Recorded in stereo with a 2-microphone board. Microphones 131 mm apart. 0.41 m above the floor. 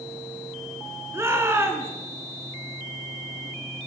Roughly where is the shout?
Centre.